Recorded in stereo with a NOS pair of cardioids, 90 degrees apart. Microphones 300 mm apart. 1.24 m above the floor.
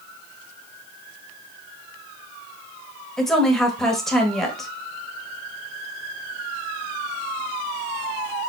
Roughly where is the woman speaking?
Ahead.